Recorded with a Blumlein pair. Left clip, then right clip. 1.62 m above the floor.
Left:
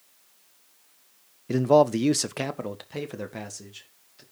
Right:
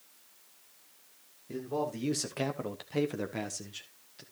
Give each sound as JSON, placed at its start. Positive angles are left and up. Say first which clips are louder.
{"t": 1.5, "sound": "a man speaking", "louder": "left 15 dB", "azimuth_deg": 55, "distance_m": 0.6}